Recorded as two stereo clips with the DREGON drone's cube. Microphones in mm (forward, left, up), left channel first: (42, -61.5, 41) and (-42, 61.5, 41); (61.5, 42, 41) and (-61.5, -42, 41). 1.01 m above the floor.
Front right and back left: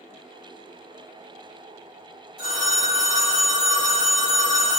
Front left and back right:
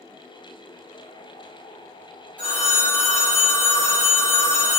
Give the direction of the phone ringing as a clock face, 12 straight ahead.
2 o'clock.